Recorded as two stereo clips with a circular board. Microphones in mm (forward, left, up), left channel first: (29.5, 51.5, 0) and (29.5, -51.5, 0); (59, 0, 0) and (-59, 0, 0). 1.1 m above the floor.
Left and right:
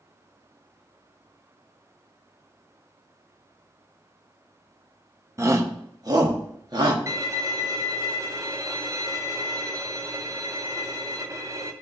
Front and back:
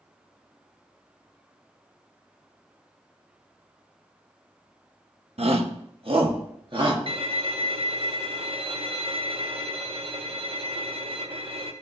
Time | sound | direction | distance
5.4 | a shout | 150° right | 1.1 m
7.1 | a violin | 145° right | 0.9 m